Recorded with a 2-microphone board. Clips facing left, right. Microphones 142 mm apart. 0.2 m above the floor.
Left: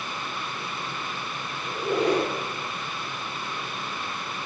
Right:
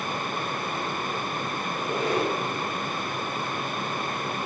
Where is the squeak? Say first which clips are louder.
Left 5 dB; 70° left (ahead or behind), 3 m.